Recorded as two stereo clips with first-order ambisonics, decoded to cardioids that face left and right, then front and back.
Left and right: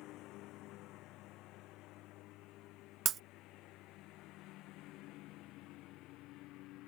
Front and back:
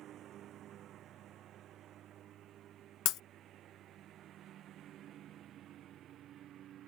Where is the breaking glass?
35° right.